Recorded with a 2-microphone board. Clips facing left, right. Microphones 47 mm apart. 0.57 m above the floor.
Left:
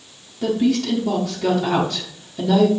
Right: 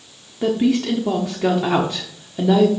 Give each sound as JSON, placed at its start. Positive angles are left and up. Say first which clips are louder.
{"t": 0.4, "sound": "a woman speaking", "louder": "right 1 dB", "side_deg": -25, "distance_m": 1.1}